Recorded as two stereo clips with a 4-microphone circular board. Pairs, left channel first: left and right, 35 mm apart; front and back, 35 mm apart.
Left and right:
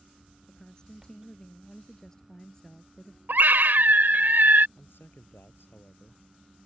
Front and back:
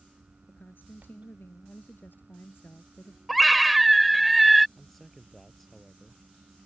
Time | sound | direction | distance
0.5 | a woman speaking | 20° left | ?
3.3 | a scream | 90° right | ?
4.8 | a man speaking | 85° left | ?